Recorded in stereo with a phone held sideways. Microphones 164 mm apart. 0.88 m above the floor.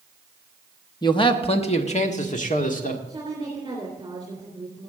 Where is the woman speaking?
25° right (ahead or behind), 3 m.